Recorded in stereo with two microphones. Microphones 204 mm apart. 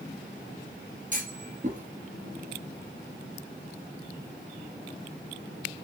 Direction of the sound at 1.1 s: 40° right (ahead or behind).